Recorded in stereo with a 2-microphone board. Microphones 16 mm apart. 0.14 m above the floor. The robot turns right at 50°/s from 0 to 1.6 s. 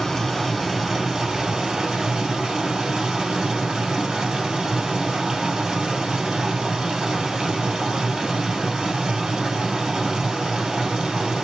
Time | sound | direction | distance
0.0 | running water | 150° left | 2 m